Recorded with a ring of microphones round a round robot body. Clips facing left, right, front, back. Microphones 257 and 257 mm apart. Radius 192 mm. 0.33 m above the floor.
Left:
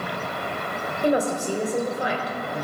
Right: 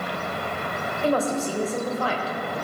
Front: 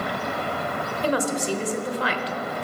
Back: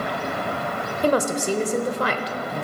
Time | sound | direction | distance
1.0 | a woman speaking | 160° left | 1.4 m